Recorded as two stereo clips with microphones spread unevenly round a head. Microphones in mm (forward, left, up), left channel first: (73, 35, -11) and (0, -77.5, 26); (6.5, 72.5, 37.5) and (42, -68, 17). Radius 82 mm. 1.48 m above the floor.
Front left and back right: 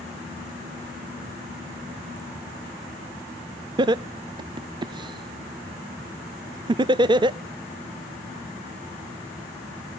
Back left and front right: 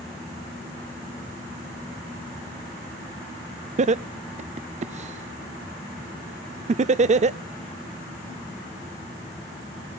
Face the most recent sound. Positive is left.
turn(degrees=-60)